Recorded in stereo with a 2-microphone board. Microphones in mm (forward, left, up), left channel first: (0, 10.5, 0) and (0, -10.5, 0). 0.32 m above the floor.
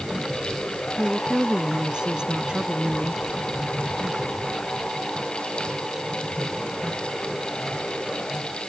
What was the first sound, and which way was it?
A woman speaking, 40° right (ahead or behind).